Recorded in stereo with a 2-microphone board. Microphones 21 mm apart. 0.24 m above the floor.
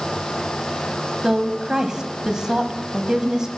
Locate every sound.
1.2 s a woman speaking: 30° right (ahead or behind), 1.3 m